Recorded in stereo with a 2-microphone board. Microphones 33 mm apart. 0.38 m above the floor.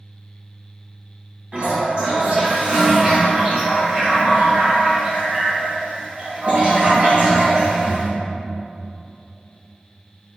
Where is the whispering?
No whispering in this recording.